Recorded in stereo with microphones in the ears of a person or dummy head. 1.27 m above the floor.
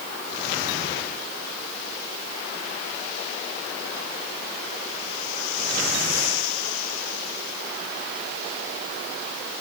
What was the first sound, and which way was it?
Only background noise.